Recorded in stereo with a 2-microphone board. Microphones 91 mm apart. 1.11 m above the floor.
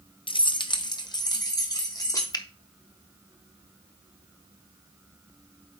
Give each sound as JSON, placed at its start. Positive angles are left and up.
{"t": 0.3, "sound": "keys jangling", "side_deg": 60, "distance_m": 0.5}
{"t": 2.3, "sound": "a finger snap", "side_deg": 45, "distance_m": 0.6}